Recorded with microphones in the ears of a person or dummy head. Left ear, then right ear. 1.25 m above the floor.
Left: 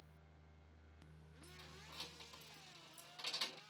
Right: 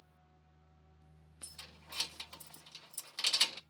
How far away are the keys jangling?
About 0.5 m.